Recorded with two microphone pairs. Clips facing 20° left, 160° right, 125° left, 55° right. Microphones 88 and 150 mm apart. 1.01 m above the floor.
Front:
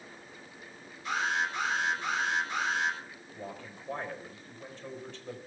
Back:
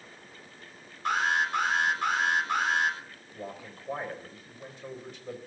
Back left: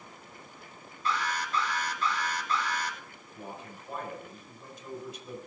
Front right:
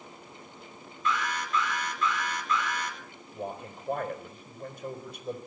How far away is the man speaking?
About 4.5 m.